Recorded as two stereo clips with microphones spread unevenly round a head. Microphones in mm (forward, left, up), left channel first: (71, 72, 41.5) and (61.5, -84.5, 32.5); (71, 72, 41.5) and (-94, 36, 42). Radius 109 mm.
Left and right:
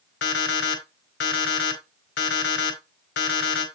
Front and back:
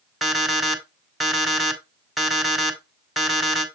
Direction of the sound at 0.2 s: 105° left.